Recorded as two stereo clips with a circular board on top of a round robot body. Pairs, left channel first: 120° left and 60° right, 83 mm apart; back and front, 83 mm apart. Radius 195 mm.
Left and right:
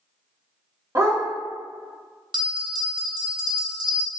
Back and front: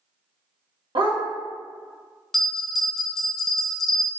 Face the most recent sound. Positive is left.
turn(degrees=-90)